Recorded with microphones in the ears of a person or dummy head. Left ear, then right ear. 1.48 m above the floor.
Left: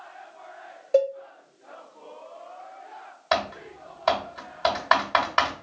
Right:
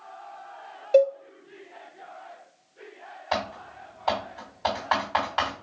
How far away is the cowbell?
About 0.6 m.